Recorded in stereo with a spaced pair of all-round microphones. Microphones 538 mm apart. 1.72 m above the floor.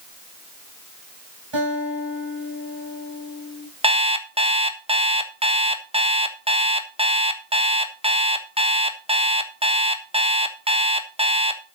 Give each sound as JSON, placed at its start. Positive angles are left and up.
{"t": 1.5, "sound": "a guitar", "side_deg": -50, "distance_m": 5.5}
{"t": 3.8, "sound": "an alarm clock", "side_deg": -10, "distance_m": 1.3}